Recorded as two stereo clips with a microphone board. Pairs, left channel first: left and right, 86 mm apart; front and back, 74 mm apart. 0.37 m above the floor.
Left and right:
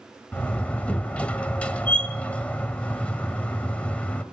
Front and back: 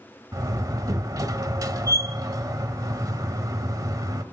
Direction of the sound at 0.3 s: 165° left.